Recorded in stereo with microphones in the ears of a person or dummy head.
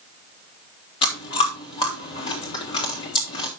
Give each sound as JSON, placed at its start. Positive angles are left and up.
{"t": 1.0, "sound": "chewing", "side_deg": 25, "distance_m": 3.0}